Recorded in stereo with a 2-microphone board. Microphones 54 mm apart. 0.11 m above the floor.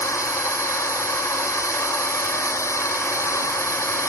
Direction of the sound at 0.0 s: 70° left (ahead or behind).